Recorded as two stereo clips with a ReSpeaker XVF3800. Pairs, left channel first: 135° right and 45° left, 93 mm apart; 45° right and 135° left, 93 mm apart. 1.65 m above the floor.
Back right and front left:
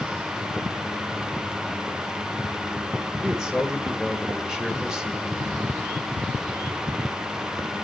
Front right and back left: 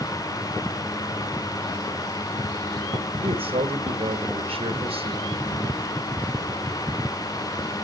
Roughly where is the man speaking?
Behind left.